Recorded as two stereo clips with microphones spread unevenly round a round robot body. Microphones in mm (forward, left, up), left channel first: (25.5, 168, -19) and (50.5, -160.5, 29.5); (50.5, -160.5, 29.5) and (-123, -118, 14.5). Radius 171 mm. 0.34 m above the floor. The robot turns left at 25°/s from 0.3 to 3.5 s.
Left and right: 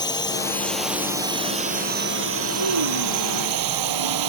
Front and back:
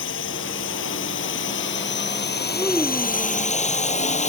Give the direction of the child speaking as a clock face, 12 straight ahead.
3 o'clock.